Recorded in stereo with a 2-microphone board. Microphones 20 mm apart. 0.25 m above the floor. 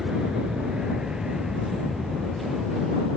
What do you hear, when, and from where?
0.0 s an aircraft: 45° right (ahead or behind); by 3.2 s 40° right (ahead or behind)